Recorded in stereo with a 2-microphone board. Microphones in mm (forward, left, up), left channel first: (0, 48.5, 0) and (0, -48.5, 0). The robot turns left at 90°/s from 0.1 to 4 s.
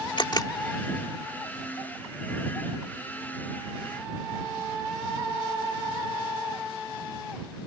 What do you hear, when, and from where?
0.2 s a camera shutter: 60° left (ahead or behind); by 0.5 s 35° left (ahead or behind)